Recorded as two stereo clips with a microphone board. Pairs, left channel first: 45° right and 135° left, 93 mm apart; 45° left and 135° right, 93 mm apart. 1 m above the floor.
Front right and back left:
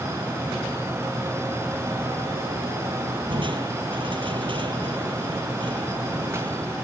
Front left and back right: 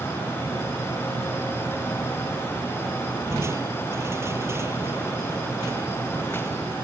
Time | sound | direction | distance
3.3 | crushing | 165° left | ?